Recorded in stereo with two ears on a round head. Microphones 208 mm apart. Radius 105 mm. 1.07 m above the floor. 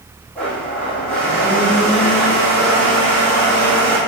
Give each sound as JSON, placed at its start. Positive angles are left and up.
{"t": 0.3, "sound": "a blender", "side_deg": 5, "distance_m": 1.9}